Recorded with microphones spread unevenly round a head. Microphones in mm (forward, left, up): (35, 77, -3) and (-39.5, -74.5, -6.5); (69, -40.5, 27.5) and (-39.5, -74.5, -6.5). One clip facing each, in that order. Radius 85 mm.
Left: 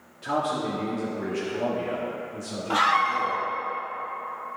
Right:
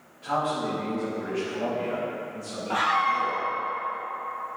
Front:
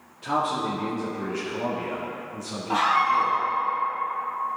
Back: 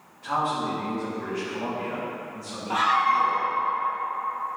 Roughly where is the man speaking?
Ahead left.